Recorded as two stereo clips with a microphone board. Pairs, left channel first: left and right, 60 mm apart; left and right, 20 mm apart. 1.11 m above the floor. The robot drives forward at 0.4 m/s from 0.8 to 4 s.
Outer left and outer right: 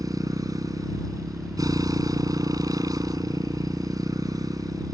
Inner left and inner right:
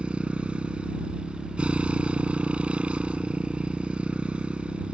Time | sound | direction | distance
0.0 | a motorcycle | 80° right | ?